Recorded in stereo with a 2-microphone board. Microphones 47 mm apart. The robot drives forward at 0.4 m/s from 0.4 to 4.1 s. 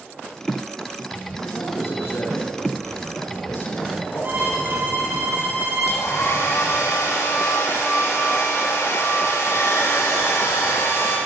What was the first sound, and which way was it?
A man speaking, 65° left (ahead or behind).